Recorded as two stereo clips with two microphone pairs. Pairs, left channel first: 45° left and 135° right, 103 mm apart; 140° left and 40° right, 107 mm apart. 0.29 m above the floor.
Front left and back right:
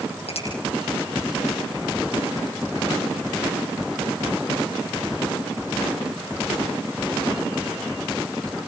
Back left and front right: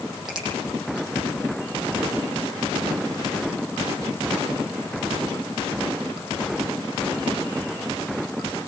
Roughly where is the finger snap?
Ahead left.